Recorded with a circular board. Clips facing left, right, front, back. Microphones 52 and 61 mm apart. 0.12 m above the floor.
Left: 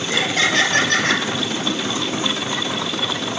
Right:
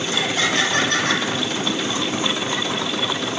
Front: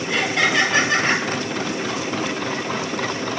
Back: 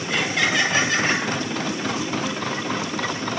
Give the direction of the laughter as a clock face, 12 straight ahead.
9 o'clock.